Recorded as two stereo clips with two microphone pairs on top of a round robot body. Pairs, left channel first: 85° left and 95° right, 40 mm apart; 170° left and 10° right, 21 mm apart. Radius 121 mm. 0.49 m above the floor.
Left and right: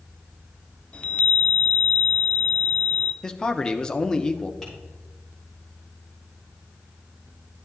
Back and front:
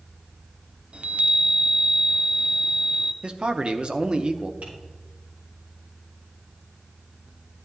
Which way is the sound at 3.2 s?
15° left.